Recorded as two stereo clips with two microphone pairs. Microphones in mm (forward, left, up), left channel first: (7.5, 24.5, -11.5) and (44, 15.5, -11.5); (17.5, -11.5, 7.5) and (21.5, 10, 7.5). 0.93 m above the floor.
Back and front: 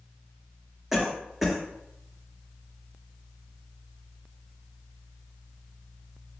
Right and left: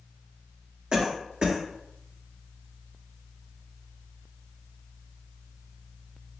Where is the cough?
65° left, 1.1 m.